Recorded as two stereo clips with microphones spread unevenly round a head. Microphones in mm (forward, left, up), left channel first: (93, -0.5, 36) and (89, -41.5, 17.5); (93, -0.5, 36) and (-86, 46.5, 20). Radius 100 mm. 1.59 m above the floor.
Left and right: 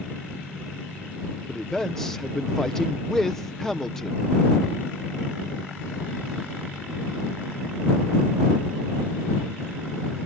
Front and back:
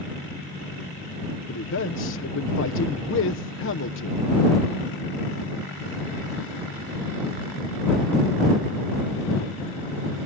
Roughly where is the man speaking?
Ahead.